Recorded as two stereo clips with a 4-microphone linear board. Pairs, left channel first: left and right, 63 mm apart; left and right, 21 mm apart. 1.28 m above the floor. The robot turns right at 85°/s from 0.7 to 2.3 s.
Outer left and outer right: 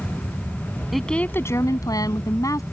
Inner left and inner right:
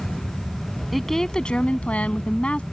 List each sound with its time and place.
0.9 s a woman speaking: straight ahead; by 2.6 s 115° left